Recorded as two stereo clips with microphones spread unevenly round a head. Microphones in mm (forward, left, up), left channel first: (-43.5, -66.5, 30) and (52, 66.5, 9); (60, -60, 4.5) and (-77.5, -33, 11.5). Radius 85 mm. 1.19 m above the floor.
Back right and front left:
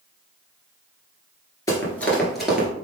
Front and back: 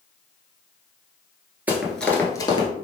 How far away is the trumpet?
No trumpet in this recording.